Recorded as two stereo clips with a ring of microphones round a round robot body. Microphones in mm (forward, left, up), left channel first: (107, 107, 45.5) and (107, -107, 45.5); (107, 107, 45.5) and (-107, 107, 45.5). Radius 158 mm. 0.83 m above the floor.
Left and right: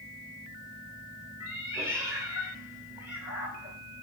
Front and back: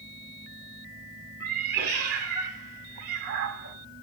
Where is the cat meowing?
170° right, 2 m.